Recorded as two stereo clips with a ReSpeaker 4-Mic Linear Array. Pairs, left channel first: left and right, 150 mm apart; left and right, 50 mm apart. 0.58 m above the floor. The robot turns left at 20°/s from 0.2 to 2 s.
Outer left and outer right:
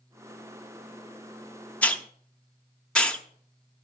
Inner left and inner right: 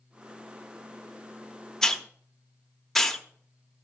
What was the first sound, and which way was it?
A hiss, 10° left (ahead or behind).